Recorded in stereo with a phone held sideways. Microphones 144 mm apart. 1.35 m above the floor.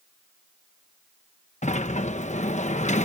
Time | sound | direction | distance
1.6 | a sliding door | 60° left (ahead or behind) | ?